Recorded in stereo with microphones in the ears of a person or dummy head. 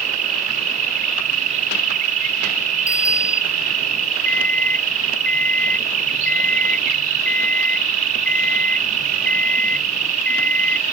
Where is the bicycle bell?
20° left (ahead or behind).